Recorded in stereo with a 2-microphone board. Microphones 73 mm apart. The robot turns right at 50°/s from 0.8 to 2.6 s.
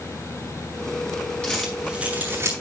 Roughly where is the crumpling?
Centre.